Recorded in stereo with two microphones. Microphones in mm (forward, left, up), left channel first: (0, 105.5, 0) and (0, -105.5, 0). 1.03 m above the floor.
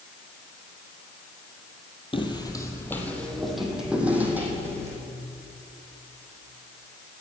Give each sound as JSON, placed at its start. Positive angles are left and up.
{"t": 2.1, "sound": "footsteps", "side_deg": 25, "distance_m": 1.6}